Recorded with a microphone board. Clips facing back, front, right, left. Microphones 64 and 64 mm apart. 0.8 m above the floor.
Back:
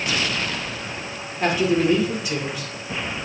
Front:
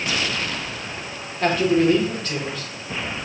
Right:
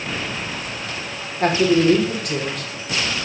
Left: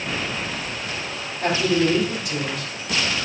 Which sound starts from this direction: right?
A man speaking, at 1.4 s.